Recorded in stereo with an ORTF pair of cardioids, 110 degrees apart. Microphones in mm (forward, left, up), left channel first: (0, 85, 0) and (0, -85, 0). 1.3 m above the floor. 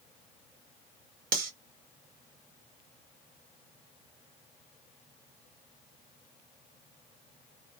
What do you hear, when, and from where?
1.3 s cutlery clinking: 60° right, 1.1 m